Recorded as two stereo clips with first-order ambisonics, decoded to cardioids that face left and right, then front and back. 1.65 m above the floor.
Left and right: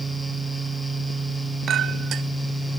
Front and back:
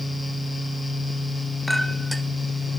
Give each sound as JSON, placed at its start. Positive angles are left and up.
{"t": 1.7, "sound": "a clink", "azimuth_deg": -90, "distance_m": 0.9}